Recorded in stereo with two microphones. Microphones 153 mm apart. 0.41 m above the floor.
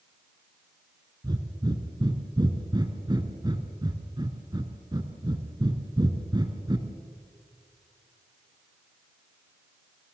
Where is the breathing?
30° right (ahead or behind), 1.9 m.